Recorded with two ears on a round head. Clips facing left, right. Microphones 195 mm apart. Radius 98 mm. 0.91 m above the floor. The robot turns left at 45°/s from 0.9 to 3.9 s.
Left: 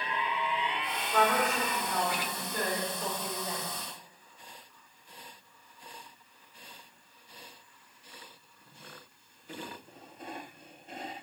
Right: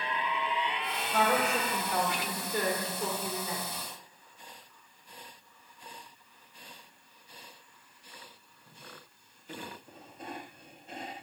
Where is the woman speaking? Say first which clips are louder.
Even; straight ahead, 3 m; by 3.6 s 115° right, 3 m.